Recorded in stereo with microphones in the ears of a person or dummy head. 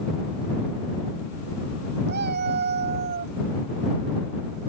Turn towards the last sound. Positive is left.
turn(degrees=-45)  # may be behind; listen again after turning